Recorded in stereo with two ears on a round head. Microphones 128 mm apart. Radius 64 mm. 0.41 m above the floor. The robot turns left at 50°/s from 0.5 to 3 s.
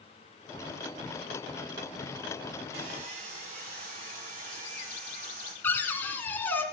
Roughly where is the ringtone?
I don't hear a ringtone.